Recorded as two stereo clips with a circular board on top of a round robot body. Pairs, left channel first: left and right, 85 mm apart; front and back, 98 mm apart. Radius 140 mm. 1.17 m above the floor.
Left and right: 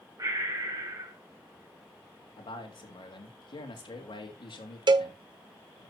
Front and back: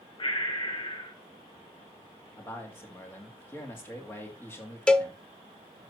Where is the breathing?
45° right, 4 m.